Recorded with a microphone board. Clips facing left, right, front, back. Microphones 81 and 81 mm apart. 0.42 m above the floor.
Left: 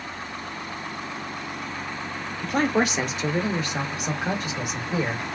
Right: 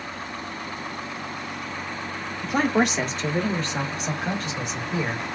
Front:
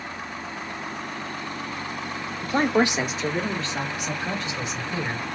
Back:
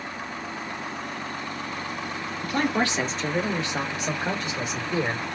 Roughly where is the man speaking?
Ahead.